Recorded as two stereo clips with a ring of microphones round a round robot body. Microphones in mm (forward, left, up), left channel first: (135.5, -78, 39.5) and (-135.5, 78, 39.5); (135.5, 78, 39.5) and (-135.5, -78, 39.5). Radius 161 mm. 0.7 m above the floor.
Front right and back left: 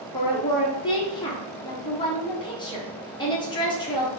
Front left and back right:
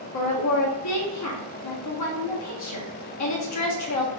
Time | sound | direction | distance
0.1 | a woman speaking | 45° left | 1.3 m